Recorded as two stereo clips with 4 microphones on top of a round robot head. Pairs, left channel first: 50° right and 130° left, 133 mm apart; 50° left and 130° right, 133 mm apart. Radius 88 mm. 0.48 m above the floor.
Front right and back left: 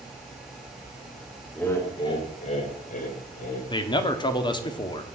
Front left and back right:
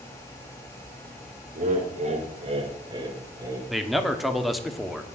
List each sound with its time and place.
1.6 s laughter: 130° right, 1.6 m; by 3.6 s 60° right, 3 m
3.7 s a man speaking: 40° right, 1.2 m